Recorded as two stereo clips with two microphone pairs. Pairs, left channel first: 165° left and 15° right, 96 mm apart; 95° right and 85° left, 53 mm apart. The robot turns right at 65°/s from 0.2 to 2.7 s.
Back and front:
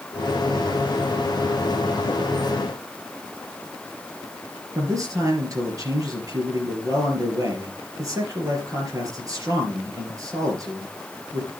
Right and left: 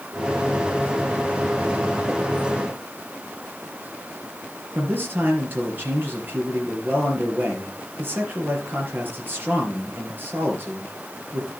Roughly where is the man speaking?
Ahead left.